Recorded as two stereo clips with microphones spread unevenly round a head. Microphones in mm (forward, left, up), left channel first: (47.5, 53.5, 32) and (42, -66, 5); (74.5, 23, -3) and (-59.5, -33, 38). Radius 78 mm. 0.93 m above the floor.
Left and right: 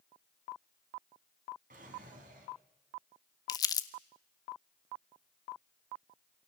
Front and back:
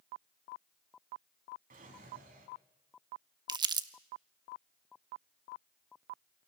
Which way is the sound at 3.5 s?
140° left.